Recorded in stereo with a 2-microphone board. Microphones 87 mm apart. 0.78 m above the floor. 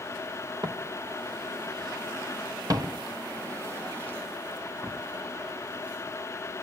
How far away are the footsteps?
About 1.6 m.